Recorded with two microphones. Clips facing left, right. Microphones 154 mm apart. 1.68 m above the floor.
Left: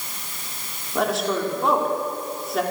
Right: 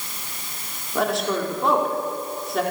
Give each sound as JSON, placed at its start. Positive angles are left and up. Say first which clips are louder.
{"t": 0.9, "sound": "a woman speaking", "louder": "even", "side_deg": 0, "distance_m": 5.5}